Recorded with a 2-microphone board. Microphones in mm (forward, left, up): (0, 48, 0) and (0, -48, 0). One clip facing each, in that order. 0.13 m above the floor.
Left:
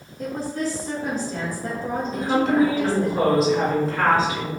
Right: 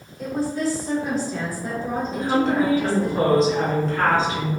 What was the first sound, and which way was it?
A woman speaking, 45° left (ahead or behind).